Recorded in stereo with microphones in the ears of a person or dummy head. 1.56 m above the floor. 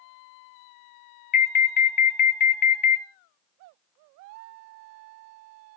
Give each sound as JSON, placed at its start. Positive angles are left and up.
{"t": 1.3, "sound": "an alarm", "side_deg": 45, "distance_m": 0.6}